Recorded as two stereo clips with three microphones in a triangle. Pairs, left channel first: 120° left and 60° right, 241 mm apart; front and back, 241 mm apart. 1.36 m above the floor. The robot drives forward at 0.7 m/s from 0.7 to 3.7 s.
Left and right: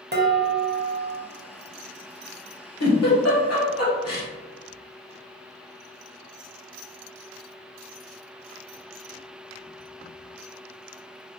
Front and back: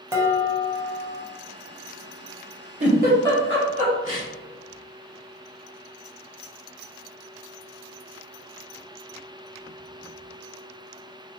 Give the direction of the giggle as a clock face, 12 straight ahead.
8 o'clock.